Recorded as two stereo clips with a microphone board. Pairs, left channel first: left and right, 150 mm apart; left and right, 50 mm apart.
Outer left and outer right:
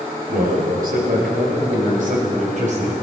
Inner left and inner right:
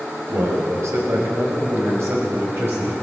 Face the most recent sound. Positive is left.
turn(degrees=-50)  # may be behind; listen again after turning